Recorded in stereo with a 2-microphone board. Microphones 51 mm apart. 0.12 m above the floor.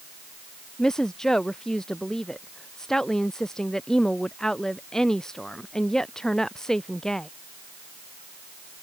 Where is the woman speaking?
10° left (ahead or behind).